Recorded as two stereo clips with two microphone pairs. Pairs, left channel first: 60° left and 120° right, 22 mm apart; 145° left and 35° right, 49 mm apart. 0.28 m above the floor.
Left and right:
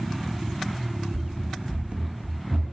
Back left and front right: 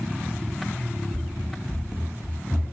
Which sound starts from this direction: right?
Running footsteps, at 1.1 s.